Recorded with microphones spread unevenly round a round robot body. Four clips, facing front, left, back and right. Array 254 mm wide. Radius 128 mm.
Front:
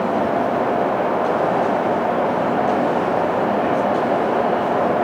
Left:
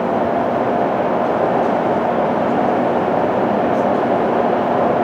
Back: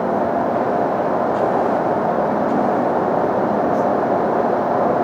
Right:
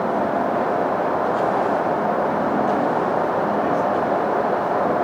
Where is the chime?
I don't hear a chime.